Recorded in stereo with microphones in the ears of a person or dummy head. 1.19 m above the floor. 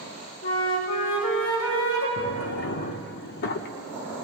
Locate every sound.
0.4 s a flute: 80° left, 3.5 m
2.2 s a drawer: 55° left (ahead or behind), 1.0 m